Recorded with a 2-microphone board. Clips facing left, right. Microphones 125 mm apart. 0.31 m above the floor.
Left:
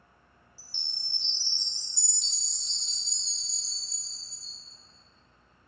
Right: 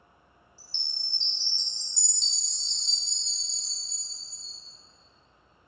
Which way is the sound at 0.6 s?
10° left (ahead or behind).